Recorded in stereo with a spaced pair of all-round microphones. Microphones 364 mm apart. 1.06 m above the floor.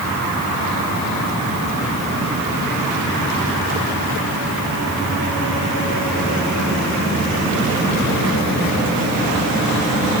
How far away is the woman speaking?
I don't hear a woman speaking.